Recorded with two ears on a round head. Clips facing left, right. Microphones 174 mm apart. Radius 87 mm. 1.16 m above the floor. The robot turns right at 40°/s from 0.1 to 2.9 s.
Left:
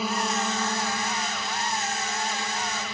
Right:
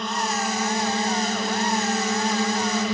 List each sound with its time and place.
0.0 s a drone: 175° left; by 2.9 s 75° right